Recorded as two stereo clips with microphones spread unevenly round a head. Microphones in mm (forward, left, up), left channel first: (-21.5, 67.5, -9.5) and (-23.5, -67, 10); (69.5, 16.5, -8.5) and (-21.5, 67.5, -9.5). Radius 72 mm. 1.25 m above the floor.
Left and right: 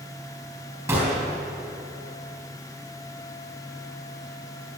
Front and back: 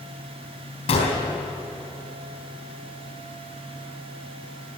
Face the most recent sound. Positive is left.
turn(degrees=-20)